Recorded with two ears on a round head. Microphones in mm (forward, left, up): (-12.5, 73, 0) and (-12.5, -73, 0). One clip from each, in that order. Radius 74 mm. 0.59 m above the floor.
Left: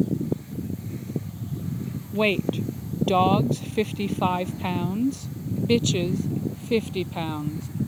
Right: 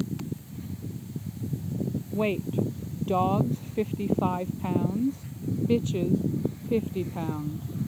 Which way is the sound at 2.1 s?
80° left.